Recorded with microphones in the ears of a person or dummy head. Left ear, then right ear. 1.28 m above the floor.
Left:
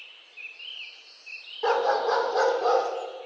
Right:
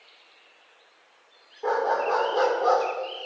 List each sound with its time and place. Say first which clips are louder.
1.6 s a dog barking: left 1 dB; 55° left (ahead or behind), 1.9 m; by 2.9 s 5° left (ahead or behind), 1.9 m